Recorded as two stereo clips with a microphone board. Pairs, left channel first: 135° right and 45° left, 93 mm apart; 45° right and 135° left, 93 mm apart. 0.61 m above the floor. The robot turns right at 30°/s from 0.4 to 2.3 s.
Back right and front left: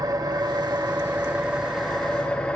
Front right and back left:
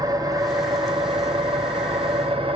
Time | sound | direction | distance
0.0 | an engine running | 90° left | 1.7 m